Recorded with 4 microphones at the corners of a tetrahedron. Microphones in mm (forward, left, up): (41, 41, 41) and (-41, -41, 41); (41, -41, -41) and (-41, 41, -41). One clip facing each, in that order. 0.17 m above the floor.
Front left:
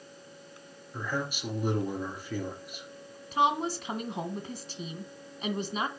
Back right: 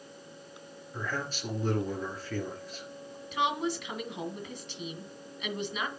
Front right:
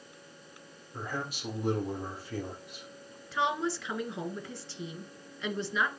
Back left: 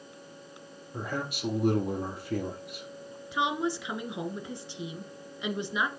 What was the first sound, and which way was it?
A man speaking, 120° left.